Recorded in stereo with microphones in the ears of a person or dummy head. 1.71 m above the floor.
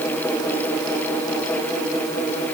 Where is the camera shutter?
No camera shutter in this recording.